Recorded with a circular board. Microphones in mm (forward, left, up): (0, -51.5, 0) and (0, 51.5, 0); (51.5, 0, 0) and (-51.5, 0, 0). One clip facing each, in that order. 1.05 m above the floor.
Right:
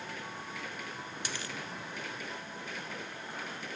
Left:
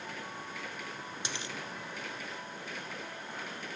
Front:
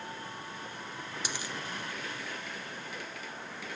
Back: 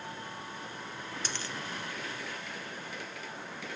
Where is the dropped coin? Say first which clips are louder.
Even, front 1 dB; 60° left, 0.6 m.